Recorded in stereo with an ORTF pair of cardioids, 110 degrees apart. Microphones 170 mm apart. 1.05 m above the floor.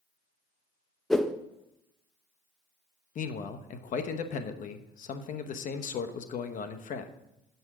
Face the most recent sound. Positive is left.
turn(degrees=50)